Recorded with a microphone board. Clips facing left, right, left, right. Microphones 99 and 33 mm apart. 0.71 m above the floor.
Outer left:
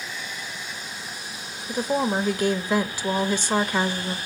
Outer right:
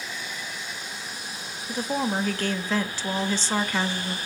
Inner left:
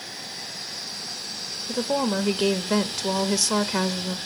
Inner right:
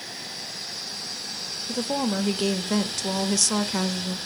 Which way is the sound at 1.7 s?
15° left (ahead or behind).